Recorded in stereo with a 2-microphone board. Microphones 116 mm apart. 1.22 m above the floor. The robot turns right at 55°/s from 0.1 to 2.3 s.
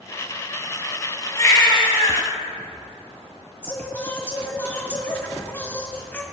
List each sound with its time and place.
1.4 s a baby crying: 25° left, 3 m; by 2.3 s 75° left, 3 m
3.6 s singing: 20° left (ahead or behind), 1.6 m